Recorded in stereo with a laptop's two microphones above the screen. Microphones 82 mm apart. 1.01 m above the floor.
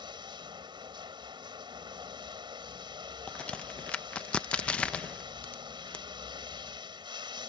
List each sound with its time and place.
0.0 s running water: 80° right
3.3 s a crack: 15° left (ahead or behind)